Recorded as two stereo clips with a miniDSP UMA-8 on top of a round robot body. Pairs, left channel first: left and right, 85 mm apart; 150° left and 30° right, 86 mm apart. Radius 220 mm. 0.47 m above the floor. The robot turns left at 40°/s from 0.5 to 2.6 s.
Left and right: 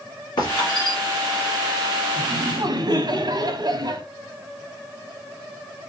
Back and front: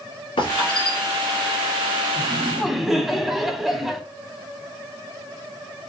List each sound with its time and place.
0.4 s a squeak: 130° left, 1.7 m; by 1.0 s 110° left, 1.7 m
2.2 s laughter: 100° right, 1.5 m; by 4.0 s 115° right, 1.5 m